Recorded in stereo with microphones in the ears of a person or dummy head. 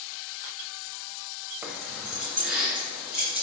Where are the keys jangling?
15° right (ahead or behind), 0.5 m; by 3.4 s centre (ahead or behind), 3 m.